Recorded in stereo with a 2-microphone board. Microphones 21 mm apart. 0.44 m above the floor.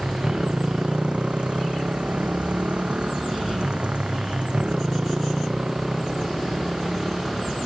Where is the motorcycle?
55° right (ahead or behind); by 7.7 s 20° right (ahead or behind).